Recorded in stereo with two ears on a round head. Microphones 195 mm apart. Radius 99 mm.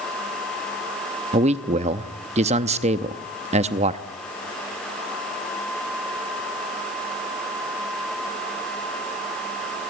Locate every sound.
1.3 s a man speaking: 30° right (ahead or behind), 0.7 m